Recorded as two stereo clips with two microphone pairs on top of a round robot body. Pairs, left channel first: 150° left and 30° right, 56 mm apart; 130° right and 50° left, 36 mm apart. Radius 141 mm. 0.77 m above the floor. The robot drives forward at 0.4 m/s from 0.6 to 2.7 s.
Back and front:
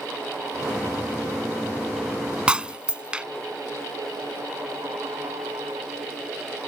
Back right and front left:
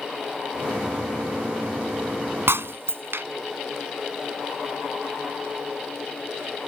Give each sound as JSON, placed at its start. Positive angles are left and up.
{"t": 2.5, "sound": "breaking glass", "azimuth_deg": 45}